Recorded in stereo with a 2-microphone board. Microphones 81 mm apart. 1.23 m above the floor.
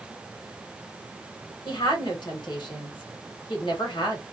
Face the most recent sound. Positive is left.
turn(degrees=60)  # may be behind; listen again after turning